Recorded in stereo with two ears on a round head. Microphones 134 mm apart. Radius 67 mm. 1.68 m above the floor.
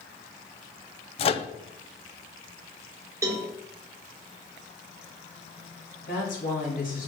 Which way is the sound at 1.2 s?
40° left (ahead or behind).